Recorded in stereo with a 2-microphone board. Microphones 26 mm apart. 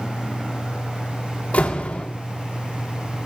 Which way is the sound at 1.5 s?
65° left (ahead or behind).